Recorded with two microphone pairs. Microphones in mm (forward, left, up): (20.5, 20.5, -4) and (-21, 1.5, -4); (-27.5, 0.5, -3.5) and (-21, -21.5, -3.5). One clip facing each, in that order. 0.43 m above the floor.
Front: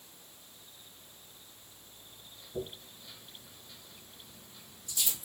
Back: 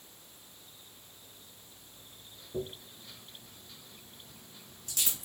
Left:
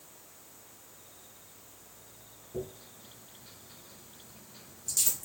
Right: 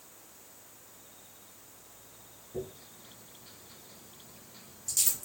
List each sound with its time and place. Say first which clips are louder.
2.5 s a dropped coin: back 2 dB, left 1 dB; 155° right, 1.4 m